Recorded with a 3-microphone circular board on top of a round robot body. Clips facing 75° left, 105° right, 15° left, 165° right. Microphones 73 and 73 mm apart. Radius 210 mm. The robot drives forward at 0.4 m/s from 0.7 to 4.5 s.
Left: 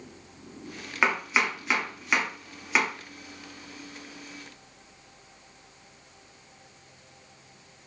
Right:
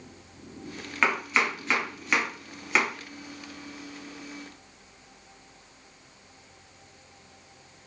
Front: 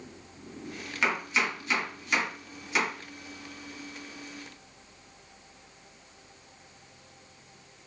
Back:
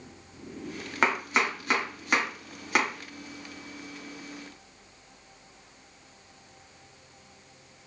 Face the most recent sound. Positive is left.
turn(degrees=170)